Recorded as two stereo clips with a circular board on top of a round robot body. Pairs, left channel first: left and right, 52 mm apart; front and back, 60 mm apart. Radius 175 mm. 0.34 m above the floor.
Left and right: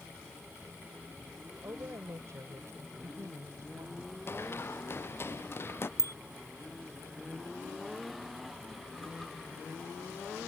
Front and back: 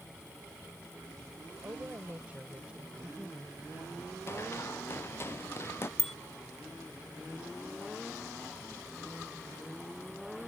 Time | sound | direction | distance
1.6 | a woman speaking | 125° right | ?
4.3 | running footsteps | 50° left | ?
6.0 | a bicycle bell | 85° right | ?